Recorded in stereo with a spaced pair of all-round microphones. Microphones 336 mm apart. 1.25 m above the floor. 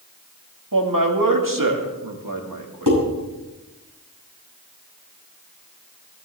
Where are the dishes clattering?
65° right (ahead or behind), 7 m.